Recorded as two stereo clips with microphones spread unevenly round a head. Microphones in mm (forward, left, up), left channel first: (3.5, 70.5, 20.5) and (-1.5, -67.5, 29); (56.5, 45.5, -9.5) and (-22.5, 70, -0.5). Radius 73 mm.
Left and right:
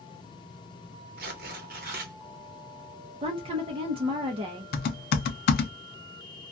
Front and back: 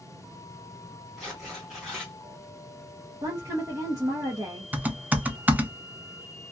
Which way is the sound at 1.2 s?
110° right.